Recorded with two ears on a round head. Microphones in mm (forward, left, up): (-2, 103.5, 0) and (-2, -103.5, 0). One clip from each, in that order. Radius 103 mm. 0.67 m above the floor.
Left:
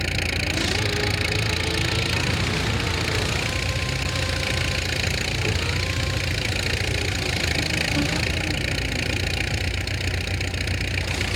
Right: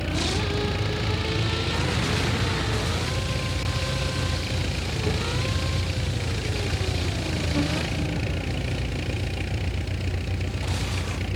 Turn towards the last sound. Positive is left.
turn(degrees=55)  # may be behind; listen again after turning